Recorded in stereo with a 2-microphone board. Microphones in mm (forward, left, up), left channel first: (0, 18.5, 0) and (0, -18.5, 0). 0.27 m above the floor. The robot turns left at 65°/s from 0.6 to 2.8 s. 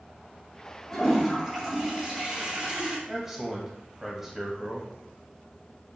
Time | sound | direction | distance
0.9 | a toilet flushing | 10° left (ahead or behind) | 1.7 m
3.1 | a man speaking | 10° right (ahead or behind) | 1.2 m